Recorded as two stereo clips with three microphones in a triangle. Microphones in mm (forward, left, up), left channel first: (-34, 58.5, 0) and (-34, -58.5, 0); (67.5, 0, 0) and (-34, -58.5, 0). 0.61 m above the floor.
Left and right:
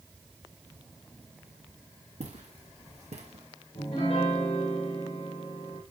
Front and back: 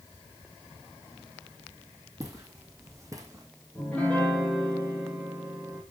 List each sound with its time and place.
2.2 s footsteps: 85° right, 2 m; by 3.5 s 90° right, 1.6 m
3.8 s a piano: 110° left, 3 m